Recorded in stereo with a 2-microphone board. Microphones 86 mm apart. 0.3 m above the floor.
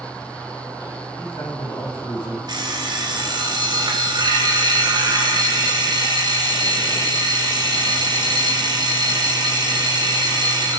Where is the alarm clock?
55° right (ahead or behind), 1.9 m.